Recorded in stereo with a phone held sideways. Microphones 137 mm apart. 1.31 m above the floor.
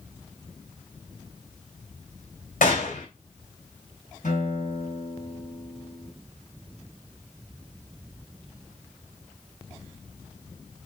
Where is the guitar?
70° left (ahead or behind), 2.5 m.